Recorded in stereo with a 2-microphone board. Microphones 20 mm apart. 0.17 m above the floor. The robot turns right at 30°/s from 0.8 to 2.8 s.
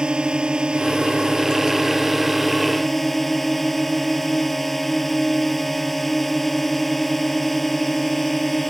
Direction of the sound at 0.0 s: 50° right.